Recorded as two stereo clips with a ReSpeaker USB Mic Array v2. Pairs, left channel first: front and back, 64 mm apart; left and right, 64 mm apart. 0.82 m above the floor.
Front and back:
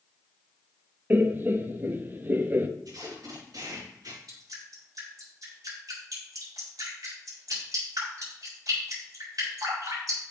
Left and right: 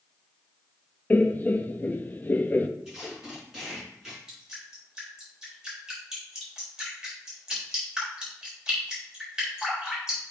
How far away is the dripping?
About 4 m.